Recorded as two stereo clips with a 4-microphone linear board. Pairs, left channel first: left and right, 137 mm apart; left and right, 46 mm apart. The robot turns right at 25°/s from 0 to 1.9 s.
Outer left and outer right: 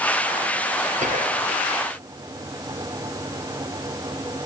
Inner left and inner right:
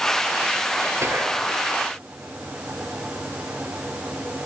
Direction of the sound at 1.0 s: 60° right (ahead or behind).